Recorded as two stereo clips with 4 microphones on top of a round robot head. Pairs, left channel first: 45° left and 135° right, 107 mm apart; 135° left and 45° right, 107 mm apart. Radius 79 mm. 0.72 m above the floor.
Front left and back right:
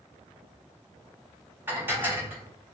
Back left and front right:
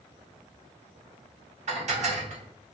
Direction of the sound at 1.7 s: 60° right.